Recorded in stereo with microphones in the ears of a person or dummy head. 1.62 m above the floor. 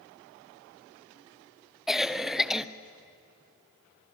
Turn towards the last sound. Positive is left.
turn(degrees=0)  # may be behind; listen again after turning